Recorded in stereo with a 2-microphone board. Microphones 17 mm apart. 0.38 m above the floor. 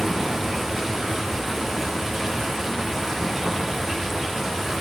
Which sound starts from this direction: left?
Running water, at 0.0 s.